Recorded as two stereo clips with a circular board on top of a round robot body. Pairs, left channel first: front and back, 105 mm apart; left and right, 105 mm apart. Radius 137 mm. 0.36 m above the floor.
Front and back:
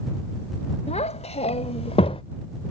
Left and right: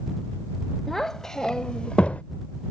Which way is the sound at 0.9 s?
5° left.